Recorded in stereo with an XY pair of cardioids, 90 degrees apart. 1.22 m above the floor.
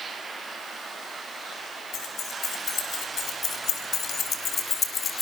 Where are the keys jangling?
70° left, 7 m; by 5.2 s 40° left, 3.5 m.